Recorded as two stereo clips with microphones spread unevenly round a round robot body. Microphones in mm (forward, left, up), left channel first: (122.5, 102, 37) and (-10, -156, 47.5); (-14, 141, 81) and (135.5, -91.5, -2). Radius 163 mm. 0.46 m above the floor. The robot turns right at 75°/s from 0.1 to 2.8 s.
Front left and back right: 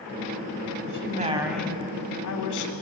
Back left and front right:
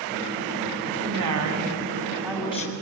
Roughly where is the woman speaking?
Right.